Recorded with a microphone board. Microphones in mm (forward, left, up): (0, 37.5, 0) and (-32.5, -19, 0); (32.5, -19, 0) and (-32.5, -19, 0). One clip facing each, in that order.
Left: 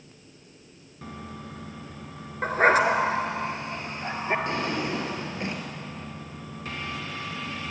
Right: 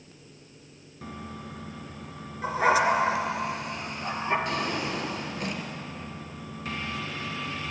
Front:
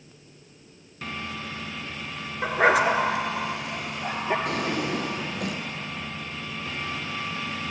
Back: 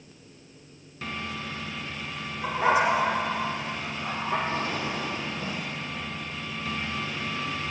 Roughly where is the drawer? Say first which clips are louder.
Left 1 dB, front 2 dB; ahead.